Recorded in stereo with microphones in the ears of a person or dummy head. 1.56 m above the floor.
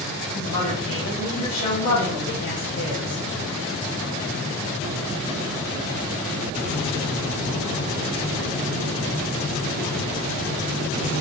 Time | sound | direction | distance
0.3 | a woman speaking | 50° left (ahead or behind) | 1.7 m